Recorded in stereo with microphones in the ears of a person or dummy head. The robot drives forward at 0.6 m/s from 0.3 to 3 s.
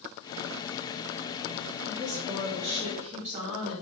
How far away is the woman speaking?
About 2.5 m.